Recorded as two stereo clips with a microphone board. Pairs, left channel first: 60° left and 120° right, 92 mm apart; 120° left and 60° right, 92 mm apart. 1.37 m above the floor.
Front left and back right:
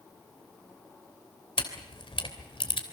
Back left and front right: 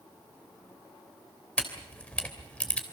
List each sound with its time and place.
1.6 s a camera shutter: 45° left, 3 m